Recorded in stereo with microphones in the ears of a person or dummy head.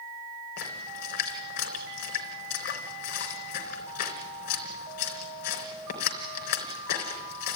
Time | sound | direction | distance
0.6 | a splash | 50° left (ahead or behind) | 3 m